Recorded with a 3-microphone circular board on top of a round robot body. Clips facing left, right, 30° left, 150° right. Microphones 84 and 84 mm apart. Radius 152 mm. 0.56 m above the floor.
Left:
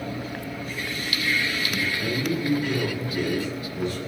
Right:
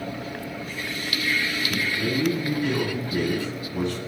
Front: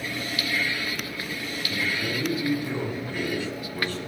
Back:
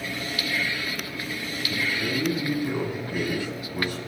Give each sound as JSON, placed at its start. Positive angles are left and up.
{"t": 1.7, "sound": "a man speaking", "azimuth_deg": -75, "distance_m": 9.0}